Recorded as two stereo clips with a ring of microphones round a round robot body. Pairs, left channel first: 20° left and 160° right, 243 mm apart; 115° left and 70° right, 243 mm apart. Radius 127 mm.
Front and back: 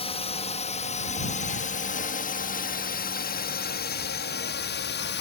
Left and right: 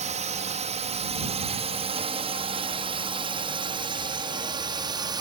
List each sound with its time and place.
0.0 s a drone: 25° right; by 5.2 s straight ahead